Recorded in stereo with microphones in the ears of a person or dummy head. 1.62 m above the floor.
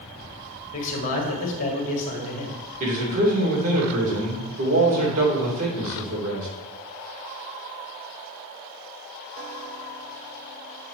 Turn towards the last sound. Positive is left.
turn(degrees=-45)  # may be behind; listen again after turning